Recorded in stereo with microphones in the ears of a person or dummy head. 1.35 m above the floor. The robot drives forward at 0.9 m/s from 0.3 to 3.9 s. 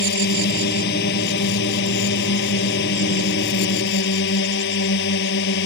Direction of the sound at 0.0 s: 60° left (ahead or behind).